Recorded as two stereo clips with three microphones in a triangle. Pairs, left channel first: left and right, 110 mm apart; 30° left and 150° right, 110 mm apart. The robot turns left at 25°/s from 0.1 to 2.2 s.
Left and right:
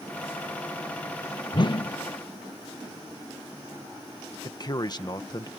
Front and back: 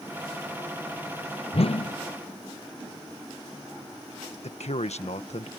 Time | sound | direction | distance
1.5 | a whoosh | 50° left | ?
4.4 | a man speaking | 40° left | ?